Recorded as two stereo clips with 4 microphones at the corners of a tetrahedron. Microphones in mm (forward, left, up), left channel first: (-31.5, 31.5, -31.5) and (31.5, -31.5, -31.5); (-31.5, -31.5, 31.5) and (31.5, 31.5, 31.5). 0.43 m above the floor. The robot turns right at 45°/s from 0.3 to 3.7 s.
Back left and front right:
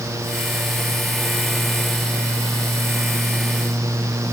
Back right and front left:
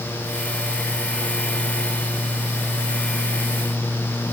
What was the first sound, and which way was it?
Only background noise.